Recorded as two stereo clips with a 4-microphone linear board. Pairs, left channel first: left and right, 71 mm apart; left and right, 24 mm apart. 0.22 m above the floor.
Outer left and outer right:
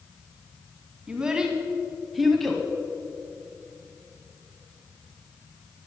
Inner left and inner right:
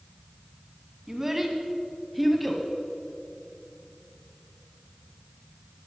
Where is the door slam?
No door slam in this recording.